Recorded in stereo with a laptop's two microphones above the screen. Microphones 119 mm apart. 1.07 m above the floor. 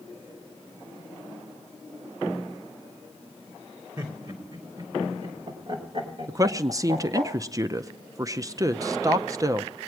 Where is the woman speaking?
30° right (ahead or behind), 0.5 m.